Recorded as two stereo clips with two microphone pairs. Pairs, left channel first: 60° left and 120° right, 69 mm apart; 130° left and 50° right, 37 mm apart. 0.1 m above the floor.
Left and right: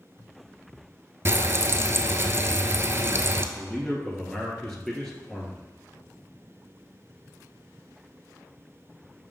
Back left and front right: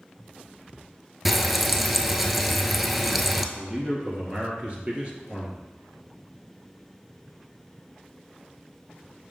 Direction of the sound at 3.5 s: 20° right.